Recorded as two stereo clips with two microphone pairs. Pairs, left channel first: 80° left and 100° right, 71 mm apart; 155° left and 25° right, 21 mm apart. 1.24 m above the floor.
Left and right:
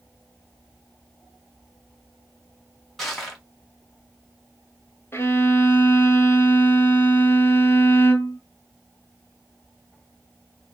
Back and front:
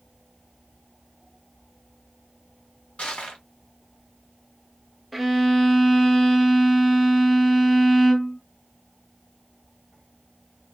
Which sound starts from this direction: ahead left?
A violin, at 5.1 s.